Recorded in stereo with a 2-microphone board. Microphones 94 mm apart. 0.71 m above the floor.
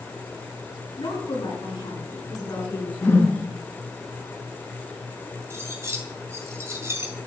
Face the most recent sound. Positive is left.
turn(degrees=-30)  # may be behind; listen again after turning